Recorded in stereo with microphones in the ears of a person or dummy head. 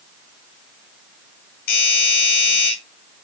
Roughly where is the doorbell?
Left.